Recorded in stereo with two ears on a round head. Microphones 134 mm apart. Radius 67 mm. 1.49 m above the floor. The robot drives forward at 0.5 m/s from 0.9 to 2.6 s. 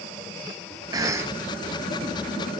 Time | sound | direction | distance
0.9 | a cough | 25° right (ahead or behind) | 0.5 m